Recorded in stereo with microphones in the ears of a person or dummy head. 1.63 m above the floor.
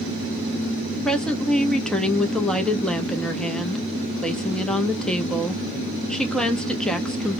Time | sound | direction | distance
1.1 | a woman speaking | 5° left (ahead or behind) | 0.6 m